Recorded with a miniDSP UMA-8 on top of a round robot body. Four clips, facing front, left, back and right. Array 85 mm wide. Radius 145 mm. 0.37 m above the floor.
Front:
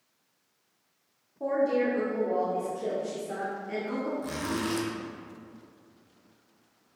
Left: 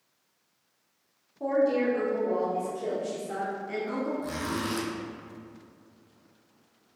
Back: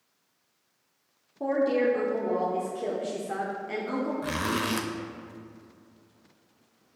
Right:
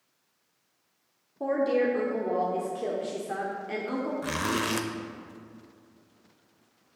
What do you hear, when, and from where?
1.4 s a woman speaking: 120° right, 1.8 m
4.2 s a zipper: 125° right, 0.8 m